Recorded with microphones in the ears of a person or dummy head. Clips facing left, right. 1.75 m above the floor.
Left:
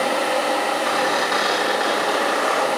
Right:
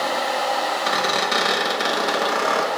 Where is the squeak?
40° right (ahead or behind), 1.3 m.